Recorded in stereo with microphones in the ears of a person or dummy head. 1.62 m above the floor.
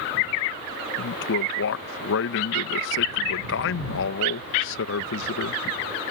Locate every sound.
1.0 s a man speaking: 75° left (ahead or behind)